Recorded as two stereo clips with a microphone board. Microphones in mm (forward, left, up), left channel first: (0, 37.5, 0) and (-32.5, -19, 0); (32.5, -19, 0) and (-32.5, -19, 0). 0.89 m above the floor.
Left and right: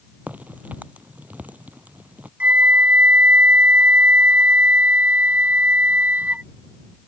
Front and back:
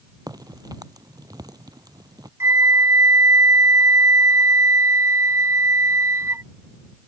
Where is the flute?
175° right.